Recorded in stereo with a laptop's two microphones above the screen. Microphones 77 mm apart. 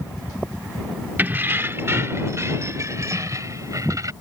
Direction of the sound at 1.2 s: 25° right (ahead or behind).